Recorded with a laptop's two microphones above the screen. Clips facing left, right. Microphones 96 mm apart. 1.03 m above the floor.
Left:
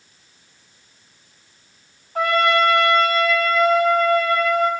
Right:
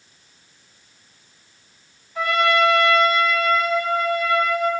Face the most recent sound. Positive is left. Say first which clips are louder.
# left 1 dB
turn(degrees=50)  # may be behind; listen again after turning